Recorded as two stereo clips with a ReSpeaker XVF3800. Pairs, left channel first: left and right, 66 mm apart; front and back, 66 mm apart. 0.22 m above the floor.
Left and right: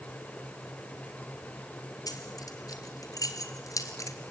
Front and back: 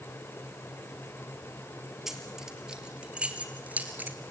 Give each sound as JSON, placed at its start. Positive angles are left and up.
{"t": 2.1, "sound": "keys jangling", "azimuth_deg": 95, "distance_m": 3.0}